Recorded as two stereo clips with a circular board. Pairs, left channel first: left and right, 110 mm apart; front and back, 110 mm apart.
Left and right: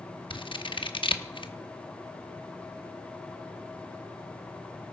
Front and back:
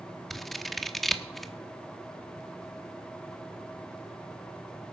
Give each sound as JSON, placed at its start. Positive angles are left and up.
{"t": 0.3, "sound": "scissors", "azimuth_deg": 90, "distance_m": 1.0}